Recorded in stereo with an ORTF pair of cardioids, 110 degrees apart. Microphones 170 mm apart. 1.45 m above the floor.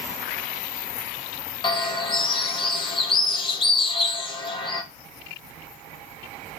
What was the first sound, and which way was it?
A bird, 30° left.